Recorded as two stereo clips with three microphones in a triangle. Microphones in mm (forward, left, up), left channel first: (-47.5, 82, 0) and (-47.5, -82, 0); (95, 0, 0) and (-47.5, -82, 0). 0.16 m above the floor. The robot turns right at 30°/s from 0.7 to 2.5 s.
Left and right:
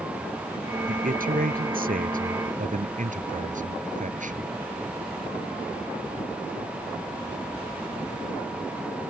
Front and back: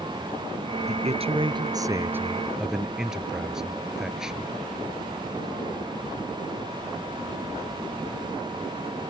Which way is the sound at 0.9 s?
115° right.